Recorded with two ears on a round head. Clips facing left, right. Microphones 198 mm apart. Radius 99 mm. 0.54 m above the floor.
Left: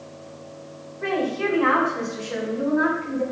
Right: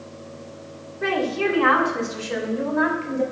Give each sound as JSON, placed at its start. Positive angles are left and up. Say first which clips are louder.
{"t": 1.0, "sound": "a woman speaking", "louder": "right 1 dB", "side_deg": -55, "distance_m": 1.9}